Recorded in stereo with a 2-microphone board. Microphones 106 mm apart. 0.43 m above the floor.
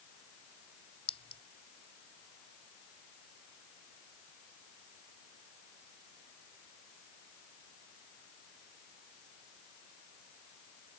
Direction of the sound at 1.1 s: 65° left (ahead or behind).